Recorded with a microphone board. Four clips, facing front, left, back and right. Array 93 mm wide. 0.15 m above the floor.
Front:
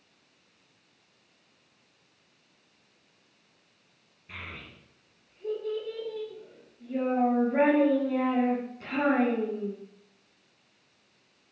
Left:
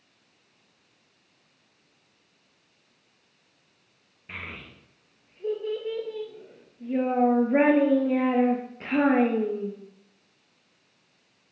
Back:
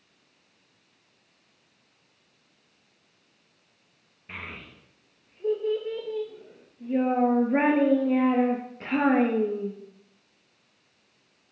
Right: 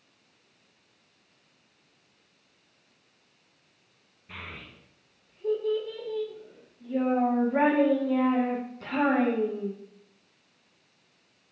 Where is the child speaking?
130° left, 2 m.